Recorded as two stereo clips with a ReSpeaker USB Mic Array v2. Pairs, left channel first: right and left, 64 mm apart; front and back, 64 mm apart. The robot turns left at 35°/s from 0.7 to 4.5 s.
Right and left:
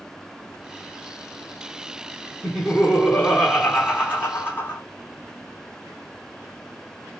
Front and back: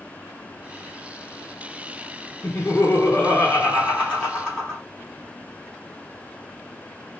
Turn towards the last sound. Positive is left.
turn(degrees=-65)